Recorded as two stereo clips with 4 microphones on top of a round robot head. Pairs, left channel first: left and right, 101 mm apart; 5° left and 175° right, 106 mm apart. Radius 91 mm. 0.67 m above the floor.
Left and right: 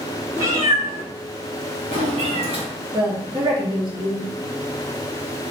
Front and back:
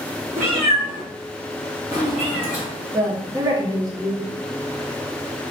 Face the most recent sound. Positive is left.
turn(degrees=-120)